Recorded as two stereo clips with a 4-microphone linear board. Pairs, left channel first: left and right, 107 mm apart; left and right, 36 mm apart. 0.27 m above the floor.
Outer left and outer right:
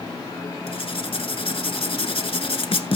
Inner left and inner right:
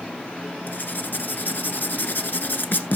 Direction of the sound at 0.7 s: 60° left (ahead or behind).